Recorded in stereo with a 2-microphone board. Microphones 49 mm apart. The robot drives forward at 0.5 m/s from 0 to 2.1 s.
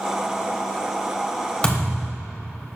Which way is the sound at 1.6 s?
20° left (ahead or behind).